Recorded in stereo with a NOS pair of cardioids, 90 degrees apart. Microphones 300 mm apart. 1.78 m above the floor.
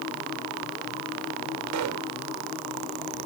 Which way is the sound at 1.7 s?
70° right.